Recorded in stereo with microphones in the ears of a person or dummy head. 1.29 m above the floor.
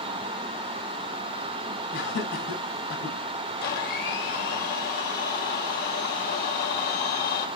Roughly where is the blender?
Left.